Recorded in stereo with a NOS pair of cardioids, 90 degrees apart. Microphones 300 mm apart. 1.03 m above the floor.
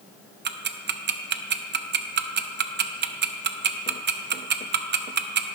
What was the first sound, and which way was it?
Ticking, 35° right.